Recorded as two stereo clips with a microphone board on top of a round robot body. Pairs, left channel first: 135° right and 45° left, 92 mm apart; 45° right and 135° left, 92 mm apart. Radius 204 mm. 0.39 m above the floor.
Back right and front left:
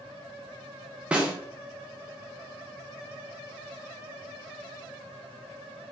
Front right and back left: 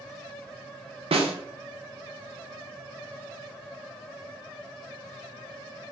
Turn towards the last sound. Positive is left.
turn(degrees=125)